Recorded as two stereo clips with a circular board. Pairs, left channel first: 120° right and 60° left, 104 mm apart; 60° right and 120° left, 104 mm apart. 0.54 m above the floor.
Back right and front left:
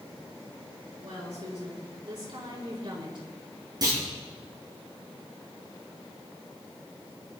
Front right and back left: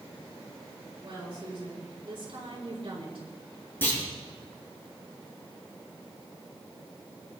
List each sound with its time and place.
1.0 s a woman speaking: 80° left, 6 m; by 3.3 s 90° left, 6 m
3.8 s a clunk: 10° left, 7.5 m